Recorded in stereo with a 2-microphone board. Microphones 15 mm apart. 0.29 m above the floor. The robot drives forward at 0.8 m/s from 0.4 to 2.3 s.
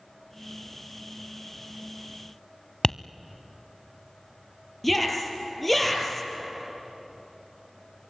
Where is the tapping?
45° left (ahead or behind), 0.5 m.